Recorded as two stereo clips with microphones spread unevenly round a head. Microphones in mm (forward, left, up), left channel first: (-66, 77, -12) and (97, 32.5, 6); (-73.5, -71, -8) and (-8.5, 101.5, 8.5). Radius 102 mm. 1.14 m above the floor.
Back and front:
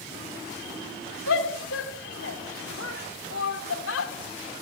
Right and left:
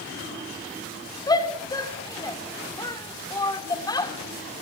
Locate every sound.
1.3 s a shout: straight behind, 2.5 m